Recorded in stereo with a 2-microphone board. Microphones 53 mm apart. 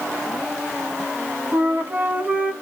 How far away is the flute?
About 1.6 m.